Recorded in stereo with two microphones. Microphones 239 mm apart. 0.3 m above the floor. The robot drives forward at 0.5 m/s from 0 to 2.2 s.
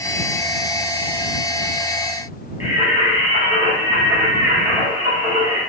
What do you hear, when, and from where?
2.6 s singing: 15° right (ahead or behind), 1.6 m